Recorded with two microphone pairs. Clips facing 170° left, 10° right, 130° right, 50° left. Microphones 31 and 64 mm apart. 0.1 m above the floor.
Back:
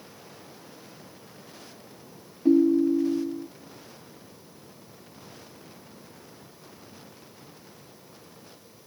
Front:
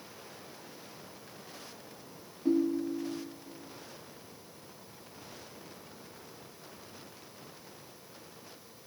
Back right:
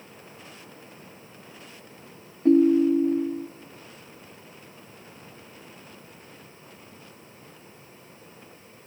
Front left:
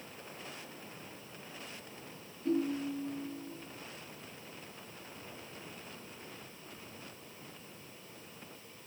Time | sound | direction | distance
2.5 | a ringtone | 130° right | 1.4 m